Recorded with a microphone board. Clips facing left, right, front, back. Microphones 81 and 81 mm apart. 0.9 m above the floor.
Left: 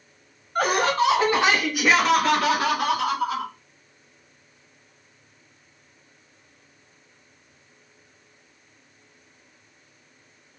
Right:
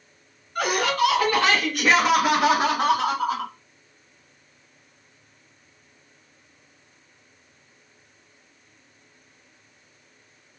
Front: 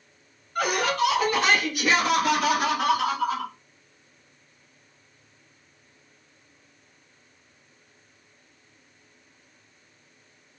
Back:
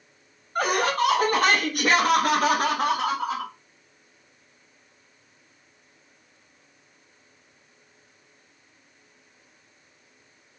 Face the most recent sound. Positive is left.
turn(degrees=-120)